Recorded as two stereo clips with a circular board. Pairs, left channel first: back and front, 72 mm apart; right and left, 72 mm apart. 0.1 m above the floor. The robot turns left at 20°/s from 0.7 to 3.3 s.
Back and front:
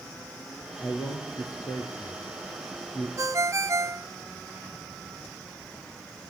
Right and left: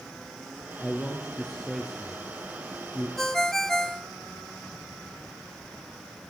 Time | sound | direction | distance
0.8 | a man speaking | 160° right | 3 m
3.2 | a ringtone | 5° right | 1.0 m